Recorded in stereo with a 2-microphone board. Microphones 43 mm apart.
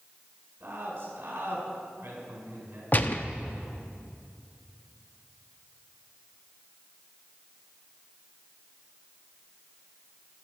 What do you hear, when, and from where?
0.6 s a man speaking: 60° right (ahead or behind), 4.5 m
2.9 s a gunshot: 40° left (ahead or behind), 0.6 m